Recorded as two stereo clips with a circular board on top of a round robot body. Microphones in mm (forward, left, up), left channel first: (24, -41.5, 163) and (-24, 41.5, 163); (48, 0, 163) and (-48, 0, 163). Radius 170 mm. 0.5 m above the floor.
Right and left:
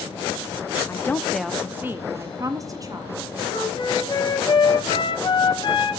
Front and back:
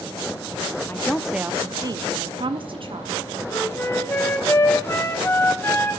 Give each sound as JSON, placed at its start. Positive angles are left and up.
{"t": 0.9, "sound": "a woman speaking", "azimuth_deg": -40, "distance_m": 0.9}
{"t": 3.5, "sound": "a flute", "azimuth_deg": -60, "distance_m": 2.0}